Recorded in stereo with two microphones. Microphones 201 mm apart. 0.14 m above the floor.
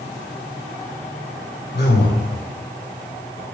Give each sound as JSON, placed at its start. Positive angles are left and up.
{"t": 1.7, "sound": "a man speaking", "side_deg": 55, "distance_m": 4.0}